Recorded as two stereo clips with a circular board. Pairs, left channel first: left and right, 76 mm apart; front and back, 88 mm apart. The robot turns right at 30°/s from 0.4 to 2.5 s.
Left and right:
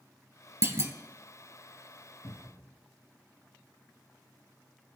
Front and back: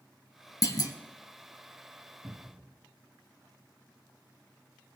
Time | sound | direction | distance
0.6 | a clunk | 45° right | 0.9 m
2.2 | a cupboard door | 90° left | 2 m